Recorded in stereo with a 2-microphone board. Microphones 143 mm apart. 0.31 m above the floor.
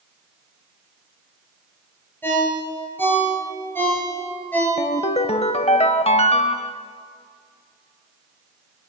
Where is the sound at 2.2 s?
15° left (ahead or behind), 4 m.